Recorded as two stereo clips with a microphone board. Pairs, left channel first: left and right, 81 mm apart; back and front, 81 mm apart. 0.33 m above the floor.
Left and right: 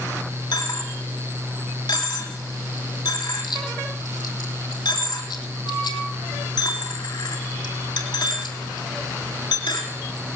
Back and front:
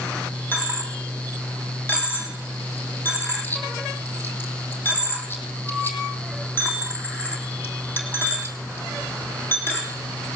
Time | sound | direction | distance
0.5 | a dropped coin | 115° left | 3 m